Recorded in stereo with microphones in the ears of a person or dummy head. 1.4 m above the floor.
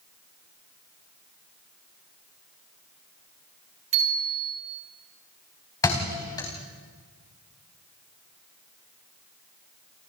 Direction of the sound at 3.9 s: 35° right (ahead or behind).